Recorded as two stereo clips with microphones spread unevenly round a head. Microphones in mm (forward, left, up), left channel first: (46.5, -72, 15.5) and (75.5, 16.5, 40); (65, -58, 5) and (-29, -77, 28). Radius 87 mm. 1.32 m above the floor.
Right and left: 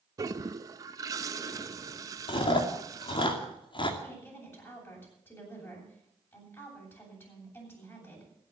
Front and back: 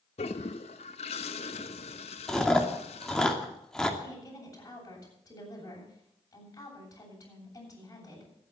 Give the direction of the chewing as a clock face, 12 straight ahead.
2 o'clock.